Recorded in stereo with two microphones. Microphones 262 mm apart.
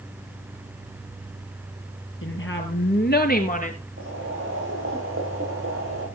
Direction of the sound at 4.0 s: 50° right (ahead or behind).